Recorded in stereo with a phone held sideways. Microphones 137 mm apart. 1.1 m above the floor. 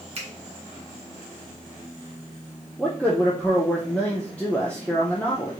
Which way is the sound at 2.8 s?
10° left (ahead or behind).